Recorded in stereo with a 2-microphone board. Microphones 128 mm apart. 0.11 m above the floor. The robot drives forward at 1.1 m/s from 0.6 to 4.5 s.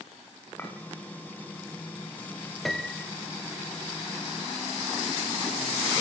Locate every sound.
0.6 s a clink: 15° left (ahead or behind), 6 m
2.6 s a piano: centre (ahead or behind), 1.5 m